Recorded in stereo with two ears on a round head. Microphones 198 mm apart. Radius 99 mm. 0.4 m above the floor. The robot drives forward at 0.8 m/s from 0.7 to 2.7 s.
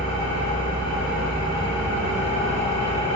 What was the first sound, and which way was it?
An engine running, 25° left (ahead or behind).